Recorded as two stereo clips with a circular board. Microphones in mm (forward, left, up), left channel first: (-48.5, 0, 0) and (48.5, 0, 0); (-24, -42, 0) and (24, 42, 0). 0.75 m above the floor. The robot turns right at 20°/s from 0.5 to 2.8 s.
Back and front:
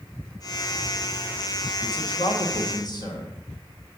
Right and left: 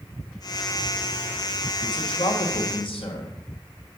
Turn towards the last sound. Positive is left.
turn(degrees=-135)